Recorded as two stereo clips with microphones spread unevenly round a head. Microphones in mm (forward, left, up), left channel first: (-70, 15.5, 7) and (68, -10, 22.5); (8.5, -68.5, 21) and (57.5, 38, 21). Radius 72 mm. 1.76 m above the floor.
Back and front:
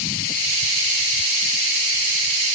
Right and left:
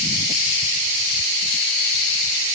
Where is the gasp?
I don't hear a gasp.